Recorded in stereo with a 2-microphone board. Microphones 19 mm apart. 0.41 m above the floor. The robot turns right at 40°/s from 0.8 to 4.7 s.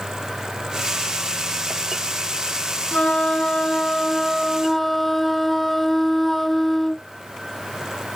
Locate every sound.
2.9 s a flute: 105° left; by 7.1 s 175° left